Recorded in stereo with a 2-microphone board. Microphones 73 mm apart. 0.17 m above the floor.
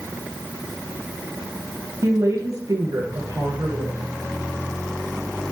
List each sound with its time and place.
2.0 s a woman speaking: 50° right (ahead or behind), 3 m; by 4.0 s 65° right (ahead or behind), 3.5 m